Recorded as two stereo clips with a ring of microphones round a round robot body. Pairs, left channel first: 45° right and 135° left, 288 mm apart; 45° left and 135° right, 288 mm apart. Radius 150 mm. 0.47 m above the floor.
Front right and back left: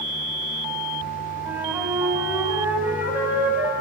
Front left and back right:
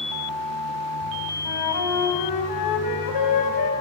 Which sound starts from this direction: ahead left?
A flute, at 1.4 s.